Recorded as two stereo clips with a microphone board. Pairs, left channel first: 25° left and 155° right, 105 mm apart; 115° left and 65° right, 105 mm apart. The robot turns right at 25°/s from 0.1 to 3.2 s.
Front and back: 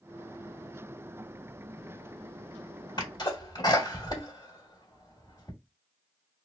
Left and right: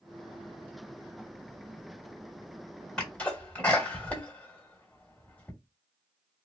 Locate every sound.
3.0 s a sneeze: 35° left, 1.4 m; by 5.5 s 40° left, 1.4 m